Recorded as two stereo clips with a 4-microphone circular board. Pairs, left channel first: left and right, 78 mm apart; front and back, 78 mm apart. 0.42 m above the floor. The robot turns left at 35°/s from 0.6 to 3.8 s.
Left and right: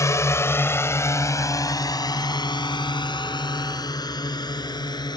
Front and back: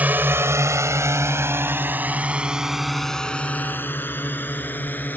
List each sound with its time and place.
0.0 s a drone: 120° left; by 5.2 s 65° left